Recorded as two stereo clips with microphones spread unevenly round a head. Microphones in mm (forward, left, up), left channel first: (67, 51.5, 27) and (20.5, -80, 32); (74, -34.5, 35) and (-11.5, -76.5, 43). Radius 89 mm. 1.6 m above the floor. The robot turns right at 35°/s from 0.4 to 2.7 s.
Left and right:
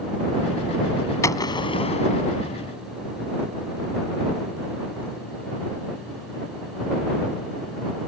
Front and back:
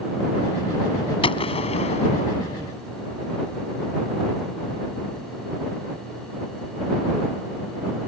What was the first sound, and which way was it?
A gunshot, straight ahead.